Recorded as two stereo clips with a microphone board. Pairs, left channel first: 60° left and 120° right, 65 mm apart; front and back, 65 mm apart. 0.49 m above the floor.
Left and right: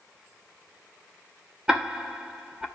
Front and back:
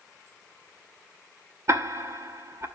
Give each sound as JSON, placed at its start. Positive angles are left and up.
{"t": 1.7, "sound": "ticking", "azimuth_deg": 170, "distance_m": 1.9}